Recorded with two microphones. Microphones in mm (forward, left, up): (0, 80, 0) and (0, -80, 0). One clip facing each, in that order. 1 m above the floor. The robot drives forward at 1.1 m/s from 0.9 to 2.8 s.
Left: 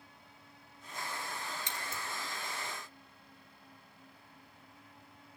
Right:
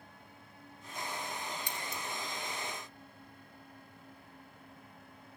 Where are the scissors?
25° left (ahead or behind), 2 m.